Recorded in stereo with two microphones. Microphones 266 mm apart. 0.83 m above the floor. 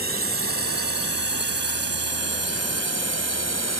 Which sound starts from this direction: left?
A drone, at 0.0 s.